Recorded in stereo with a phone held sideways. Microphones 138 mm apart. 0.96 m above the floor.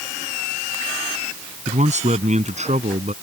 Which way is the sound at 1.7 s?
60° right (ahead or behind).